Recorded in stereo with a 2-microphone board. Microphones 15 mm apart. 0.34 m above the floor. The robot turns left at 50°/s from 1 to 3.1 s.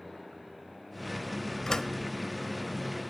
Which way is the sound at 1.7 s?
45° left (ahead or behind).